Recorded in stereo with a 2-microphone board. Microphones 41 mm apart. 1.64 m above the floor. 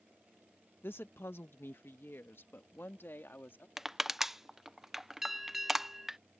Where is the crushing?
5° right (ahead or behind).